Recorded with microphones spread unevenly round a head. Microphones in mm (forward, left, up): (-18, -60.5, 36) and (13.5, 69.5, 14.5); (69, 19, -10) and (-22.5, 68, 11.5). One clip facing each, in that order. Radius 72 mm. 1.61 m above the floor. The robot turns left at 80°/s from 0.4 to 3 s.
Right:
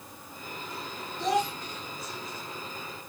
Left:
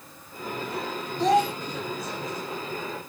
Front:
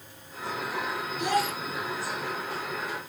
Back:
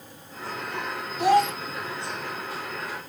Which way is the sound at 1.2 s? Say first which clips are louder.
Left 6 dB, back 8 dB; 110° left.